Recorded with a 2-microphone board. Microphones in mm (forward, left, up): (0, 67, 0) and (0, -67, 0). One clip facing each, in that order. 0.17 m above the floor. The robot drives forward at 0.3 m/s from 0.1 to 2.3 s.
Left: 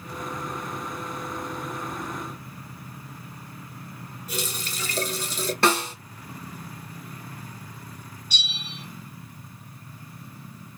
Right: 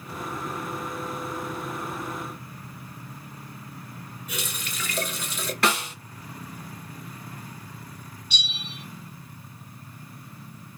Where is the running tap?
35° left (ahead or behind), 1.5 m.